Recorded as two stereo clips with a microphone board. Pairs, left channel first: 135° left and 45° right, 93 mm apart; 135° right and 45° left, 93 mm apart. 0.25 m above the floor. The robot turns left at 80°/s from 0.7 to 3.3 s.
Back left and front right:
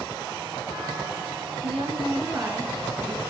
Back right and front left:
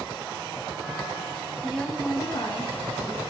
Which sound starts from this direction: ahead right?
A woman speaking, at 1.6 s.